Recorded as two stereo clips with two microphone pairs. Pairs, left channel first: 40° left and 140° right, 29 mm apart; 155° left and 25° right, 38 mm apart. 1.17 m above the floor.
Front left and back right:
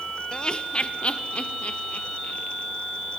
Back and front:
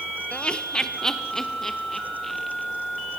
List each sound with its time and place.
0.3 s laughter: 100° left, 0.9 m; by 2.7 s 75° left, 2.5 m